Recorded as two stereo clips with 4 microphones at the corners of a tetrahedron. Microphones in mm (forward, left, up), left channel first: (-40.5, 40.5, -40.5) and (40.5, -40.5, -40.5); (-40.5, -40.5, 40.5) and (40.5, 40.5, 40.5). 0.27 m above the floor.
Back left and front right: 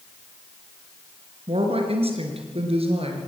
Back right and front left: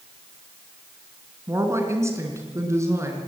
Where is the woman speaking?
20° right, 3.5 m.